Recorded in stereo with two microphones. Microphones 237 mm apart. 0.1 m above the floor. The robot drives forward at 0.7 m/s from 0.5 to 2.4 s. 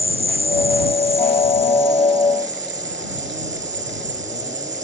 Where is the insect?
25° right (ahead or behind); by 4.8 s 30° right (ahead or behind).